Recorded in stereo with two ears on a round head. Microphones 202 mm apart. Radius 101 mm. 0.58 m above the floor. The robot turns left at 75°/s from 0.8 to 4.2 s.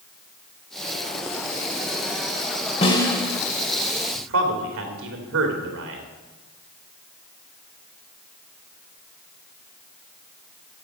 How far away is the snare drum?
About 2 m.